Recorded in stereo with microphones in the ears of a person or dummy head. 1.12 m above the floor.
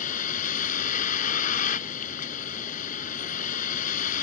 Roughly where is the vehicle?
Left.